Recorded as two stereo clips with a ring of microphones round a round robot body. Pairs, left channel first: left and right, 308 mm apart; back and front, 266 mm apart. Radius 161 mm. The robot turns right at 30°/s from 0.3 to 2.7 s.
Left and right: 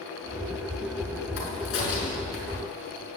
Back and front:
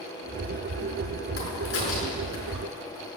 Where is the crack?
130° left, 5.5 m; by 2.6 s 165° left, 5.5 m.